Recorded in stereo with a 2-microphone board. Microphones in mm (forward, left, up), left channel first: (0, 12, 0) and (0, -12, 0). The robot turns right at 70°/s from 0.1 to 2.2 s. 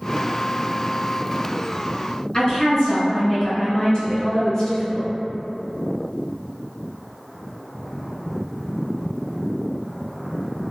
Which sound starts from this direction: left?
A woman speaking, at 2.3 s.